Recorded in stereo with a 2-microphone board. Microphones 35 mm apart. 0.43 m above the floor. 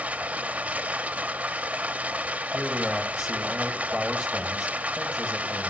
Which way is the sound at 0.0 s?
45° right (ahead or behind).